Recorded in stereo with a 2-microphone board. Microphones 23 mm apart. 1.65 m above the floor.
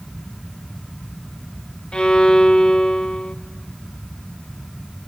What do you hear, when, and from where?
1.9 s a violin: 45° left (ahead or behind), 0.8 m